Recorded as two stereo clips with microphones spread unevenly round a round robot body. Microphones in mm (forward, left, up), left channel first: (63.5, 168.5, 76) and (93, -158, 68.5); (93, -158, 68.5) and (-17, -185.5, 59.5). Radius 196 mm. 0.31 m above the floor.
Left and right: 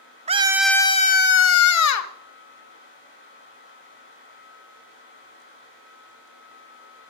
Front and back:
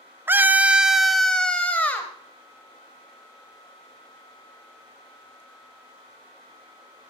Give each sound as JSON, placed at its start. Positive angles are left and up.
{"t": 0.3, "sound": "a scream", "azimuth_deg": -125, "distance_m": 0.9}